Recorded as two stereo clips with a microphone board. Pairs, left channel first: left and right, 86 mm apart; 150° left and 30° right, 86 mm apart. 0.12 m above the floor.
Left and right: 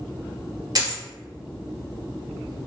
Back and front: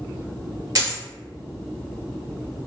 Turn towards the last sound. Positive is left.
turn(degrees=-65)